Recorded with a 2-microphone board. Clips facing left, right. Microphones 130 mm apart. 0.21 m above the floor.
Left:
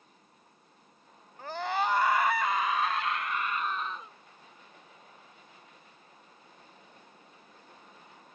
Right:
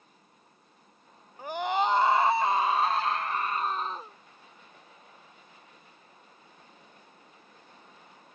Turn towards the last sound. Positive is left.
turn(degrees=-35)  # may be behind; listen again after turning